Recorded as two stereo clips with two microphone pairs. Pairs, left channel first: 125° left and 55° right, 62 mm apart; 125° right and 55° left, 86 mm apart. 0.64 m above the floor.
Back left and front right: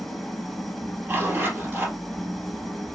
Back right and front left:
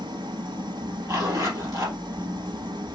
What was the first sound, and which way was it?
An engine running, 40° left.